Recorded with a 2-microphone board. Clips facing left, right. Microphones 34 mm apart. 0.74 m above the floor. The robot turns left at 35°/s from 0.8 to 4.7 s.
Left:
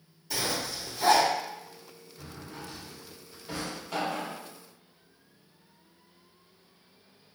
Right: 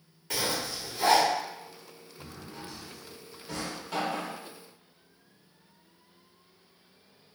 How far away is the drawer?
About 0.7 m.